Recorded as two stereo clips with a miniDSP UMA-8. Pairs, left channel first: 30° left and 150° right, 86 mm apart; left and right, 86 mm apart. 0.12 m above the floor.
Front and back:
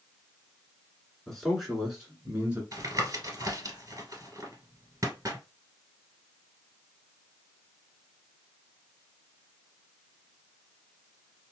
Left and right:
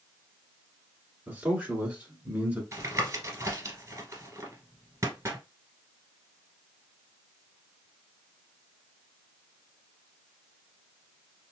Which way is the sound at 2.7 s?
125° right.